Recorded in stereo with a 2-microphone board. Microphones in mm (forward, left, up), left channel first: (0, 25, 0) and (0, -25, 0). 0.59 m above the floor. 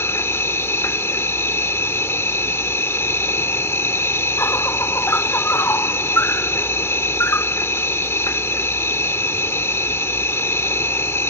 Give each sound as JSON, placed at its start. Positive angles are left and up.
{"t": 0.0, "sound": "an insect", "side_deg": 60}